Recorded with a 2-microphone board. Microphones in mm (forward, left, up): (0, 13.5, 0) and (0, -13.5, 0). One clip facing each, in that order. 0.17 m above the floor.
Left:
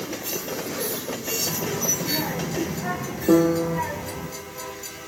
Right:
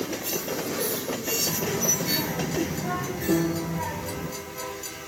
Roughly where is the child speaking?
Left.